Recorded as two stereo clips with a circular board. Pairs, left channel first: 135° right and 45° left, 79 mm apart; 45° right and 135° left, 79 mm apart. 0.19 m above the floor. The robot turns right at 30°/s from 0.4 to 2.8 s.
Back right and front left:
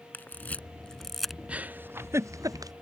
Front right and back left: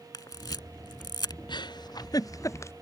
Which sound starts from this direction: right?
A camera shutter, at 0.1 s.